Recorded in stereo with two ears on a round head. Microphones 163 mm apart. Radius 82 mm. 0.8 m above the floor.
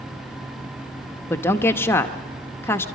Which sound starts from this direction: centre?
A woman speaking, at 1.3 s.